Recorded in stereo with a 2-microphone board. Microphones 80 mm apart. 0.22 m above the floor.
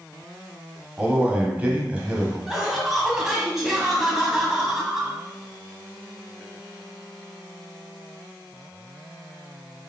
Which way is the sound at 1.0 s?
20° right (ahead or behind).